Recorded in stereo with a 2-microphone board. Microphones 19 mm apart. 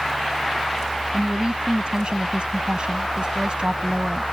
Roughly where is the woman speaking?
Right.